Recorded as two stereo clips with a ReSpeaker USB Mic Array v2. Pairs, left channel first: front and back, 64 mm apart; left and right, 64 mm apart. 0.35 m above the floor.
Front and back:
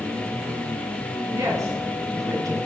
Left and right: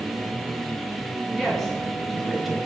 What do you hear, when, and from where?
1.3 s a woman speaking: 170° left, 3 m; by 2.6 s straight behind, 1.9 m